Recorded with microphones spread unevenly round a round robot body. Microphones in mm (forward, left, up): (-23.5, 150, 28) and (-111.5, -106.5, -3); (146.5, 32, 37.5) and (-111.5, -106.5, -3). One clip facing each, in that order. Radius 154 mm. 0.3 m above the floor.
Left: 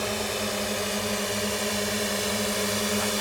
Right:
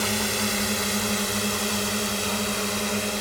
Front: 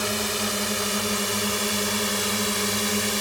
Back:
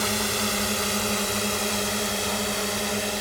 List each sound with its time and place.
0.0 s a drone: 70° right; by 3.2 s 20° right